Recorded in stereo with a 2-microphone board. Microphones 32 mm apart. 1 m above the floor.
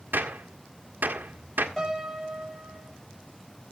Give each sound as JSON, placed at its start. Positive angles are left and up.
{"t": 0.1, "sound": "a gunshot", "side_deg": -85, "distance_m": 1.3}
{"t": 1.8, "sound": "a piano", "side_deg": 5, "distance_m": 6.0}